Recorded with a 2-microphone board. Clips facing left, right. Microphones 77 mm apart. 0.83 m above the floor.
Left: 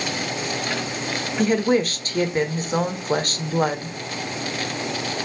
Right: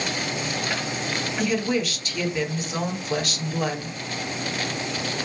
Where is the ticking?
I don't hear ticking.